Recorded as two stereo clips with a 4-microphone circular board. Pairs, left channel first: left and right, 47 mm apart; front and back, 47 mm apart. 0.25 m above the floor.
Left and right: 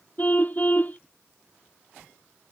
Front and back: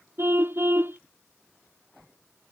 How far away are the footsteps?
No footsteps in this recording.